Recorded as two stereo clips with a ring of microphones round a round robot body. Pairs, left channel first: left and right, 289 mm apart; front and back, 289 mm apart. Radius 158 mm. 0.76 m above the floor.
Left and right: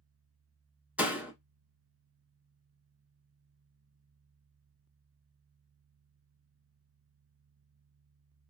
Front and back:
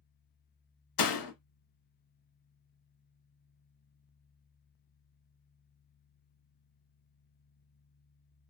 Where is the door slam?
5° right, 1.0 m.